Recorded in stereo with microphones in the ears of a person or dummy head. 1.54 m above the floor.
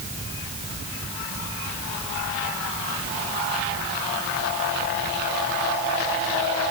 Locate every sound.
Only background noise.